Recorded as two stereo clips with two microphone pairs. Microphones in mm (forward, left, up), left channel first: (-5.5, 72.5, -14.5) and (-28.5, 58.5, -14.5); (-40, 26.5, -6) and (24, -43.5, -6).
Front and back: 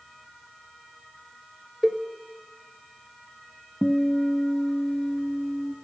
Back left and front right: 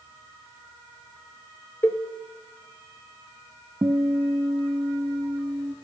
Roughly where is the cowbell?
Behind.